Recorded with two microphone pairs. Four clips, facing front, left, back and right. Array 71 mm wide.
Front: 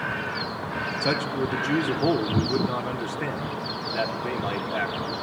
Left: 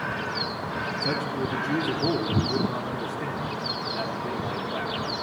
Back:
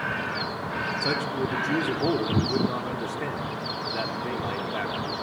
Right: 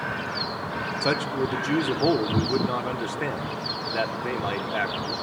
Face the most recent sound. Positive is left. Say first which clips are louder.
# right 5 dB, front 4 dB
turn(degrees=-75)